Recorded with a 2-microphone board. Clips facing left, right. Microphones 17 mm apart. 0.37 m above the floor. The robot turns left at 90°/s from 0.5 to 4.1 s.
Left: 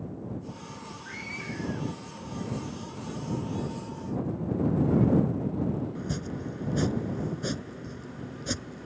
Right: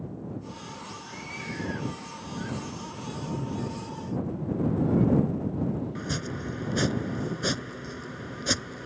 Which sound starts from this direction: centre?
A cupboard door, at 3.4 s.